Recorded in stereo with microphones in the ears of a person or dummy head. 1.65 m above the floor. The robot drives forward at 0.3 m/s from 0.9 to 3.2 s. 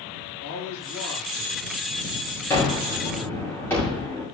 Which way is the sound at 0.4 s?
80° left.